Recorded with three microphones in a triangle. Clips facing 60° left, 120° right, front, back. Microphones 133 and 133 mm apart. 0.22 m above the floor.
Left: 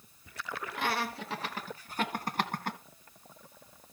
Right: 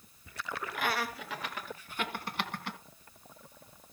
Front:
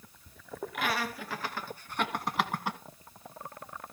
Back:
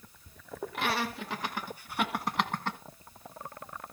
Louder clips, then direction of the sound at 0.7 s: Left 1 dB, back 1 dB; 120° left.